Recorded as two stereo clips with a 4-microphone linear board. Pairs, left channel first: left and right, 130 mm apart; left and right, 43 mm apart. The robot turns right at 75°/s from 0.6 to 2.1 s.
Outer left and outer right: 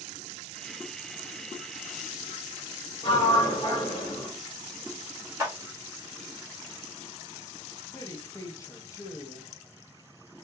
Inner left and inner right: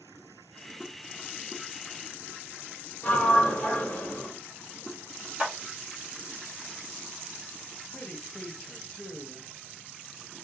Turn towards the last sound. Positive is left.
turn(degrees=25)  # may be behind; listen again after turning